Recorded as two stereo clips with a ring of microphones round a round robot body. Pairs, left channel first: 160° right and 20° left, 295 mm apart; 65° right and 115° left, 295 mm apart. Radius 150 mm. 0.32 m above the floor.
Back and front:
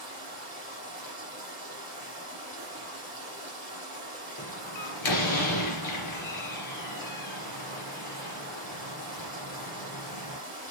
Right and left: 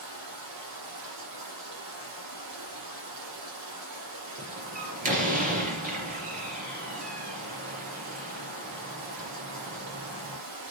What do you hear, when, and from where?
0.0 s running water: 140° left, 9 m
4.4 s a door slam: 175° left, 4 m